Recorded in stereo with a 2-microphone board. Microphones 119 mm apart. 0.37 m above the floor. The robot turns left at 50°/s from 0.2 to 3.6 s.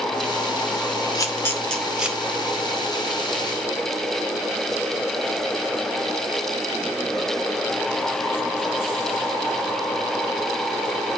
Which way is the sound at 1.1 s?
35° left (ahead or behind).